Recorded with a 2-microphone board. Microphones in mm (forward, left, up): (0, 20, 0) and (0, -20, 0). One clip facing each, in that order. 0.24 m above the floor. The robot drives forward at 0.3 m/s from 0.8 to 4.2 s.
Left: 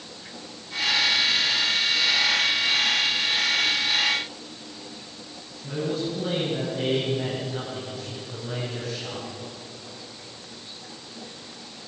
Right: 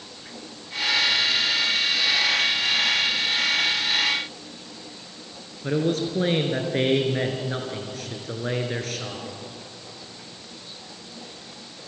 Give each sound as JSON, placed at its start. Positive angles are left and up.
{"t": 5.6, "sound": "a man speaking", "side_deg": -70, "distance_m": 3.5}